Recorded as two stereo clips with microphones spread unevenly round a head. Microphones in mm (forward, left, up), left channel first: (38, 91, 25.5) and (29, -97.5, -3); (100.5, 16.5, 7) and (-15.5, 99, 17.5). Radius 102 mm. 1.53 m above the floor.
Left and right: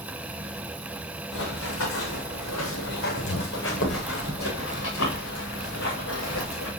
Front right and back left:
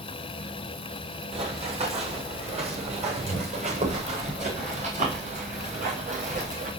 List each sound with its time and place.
1.3 s running footsteps: 100° left, 7 m; by 6.7 s 115° left, 9.5 m